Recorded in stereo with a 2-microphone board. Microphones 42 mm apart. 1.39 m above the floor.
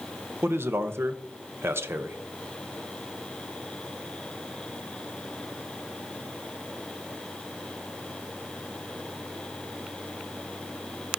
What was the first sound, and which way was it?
A man speaking, 85° right.